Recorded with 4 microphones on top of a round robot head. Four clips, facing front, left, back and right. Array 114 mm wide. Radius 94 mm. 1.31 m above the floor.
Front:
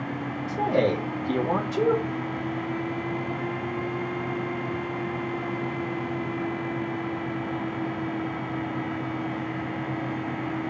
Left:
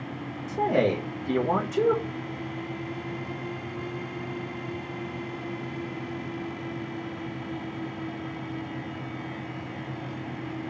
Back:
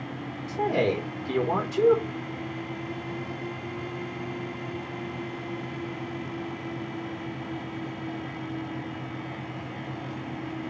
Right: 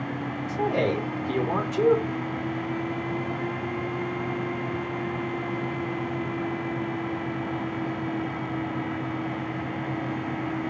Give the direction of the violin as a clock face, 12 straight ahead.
I don't hear a violin.